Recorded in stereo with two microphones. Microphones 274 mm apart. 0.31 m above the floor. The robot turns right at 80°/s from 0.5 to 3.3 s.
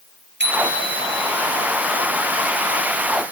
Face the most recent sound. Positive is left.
turn(degrees=85)